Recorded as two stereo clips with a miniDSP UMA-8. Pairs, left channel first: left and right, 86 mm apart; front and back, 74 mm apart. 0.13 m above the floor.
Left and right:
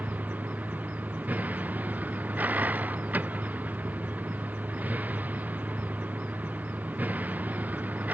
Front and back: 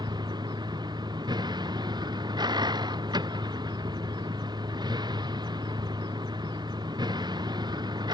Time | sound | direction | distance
0.0 | a vehicle | 160° right | ?